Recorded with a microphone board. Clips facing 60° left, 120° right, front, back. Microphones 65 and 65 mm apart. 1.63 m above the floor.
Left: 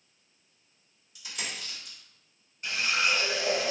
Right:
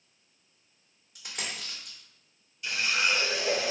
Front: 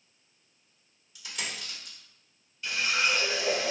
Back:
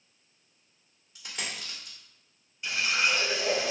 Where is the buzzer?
I don't hear a buzzer.